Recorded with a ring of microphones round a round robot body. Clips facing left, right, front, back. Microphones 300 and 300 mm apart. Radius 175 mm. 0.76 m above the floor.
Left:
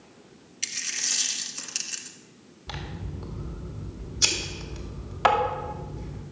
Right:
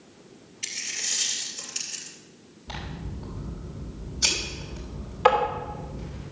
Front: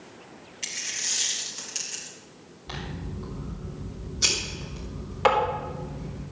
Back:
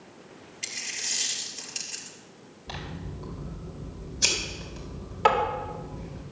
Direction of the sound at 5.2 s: 75° left.